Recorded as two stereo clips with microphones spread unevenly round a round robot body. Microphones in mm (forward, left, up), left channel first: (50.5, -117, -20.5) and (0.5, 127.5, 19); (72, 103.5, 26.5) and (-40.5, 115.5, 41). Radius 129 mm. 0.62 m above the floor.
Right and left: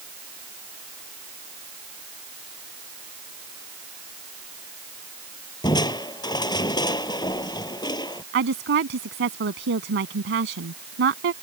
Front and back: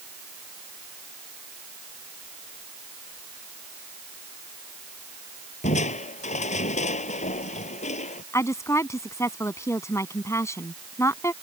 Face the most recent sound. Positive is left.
turn(degrees=60)